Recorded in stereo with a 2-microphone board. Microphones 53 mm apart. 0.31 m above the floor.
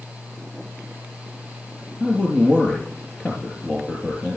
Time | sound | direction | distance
2.0 | a man speaking | 20° left (ahead or behind) | 5 m